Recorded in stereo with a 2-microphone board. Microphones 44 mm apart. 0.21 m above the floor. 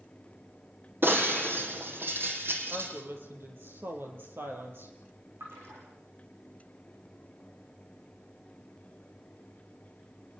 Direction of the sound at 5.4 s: 65° right (ahead or behind).